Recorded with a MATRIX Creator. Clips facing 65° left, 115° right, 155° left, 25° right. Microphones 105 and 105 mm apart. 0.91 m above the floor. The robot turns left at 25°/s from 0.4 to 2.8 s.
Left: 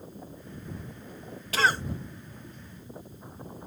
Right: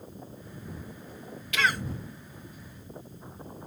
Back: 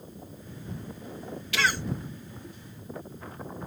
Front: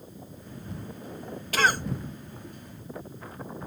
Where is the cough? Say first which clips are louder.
Left 2 dB, front 4 dB; 20° left; by 1.8 s 10° left.